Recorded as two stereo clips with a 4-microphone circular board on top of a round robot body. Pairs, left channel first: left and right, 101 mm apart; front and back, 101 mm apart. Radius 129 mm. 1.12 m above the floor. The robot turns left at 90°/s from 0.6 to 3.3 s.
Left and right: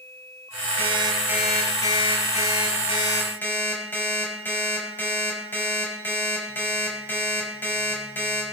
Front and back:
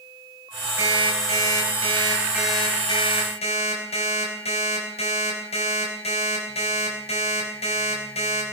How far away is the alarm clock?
About 4.5 m.